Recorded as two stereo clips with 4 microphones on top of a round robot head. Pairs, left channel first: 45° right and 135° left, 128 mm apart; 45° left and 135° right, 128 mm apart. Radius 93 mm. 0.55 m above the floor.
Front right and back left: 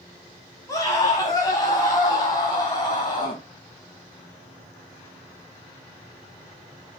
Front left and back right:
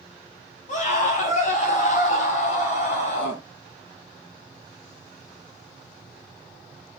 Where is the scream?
20° left, 5 m; by 3.4 s 15° left, 7 m.